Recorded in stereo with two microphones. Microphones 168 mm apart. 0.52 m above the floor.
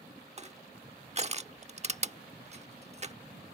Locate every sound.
0.4 s crushing: 40° right (ahead or behind)